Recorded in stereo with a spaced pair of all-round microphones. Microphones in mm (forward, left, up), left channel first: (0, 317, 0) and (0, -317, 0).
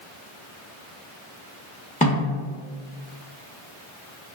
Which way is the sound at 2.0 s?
10° left (ahead or behind).